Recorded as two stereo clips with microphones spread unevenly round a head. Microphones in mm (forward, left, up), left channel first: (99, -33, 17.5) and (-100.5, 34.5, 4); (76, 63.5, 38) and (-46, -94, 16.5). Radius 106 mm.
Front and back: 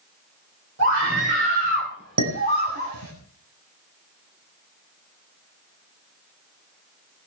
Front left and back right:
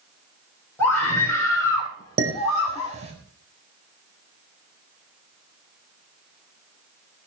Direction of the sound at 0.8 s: 130° left.